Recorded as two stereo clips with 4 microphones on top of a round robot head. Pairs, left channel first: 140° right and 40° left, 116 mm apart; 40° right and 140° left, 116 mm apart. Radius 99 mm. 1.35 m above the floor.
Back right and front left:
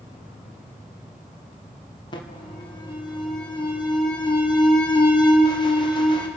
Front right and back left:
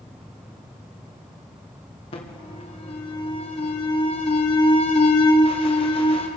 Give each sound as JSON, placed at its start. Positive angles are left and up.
{"t": 0.0, "sound": "an insect", "azimuth_deg": -155, "distance_m": 9.5}
{"t": 2.1, "sound": "an alarm", "azimuth_deg": -85, "distance_m": 2.5}